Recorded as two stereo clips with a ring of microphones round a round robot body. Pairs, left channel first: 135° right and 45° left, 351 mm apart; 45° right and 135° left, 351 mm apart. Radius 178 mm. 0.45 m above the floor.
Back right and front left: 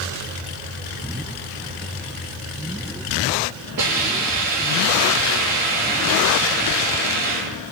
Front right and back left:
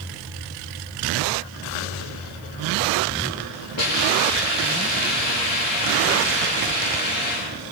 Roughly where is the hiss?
Ahead.